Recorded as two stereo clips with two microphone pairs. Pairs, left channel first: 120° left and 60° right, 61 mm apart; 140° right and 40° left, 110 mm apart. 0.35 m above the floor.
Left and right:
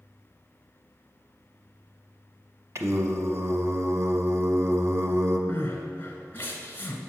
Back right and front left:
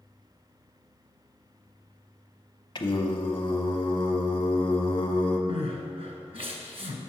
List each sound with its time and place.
2.8 s singing: 95° right, 0.8 m
5.5 s crying: 65° left, 1.2 m